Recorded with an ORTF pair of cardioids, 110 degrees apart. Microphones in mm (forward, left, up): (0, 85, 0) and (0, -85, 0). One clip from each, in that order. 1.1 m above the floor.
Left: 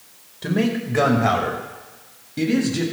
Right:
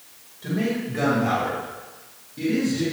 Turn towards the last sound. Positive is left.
turn(degrees=65)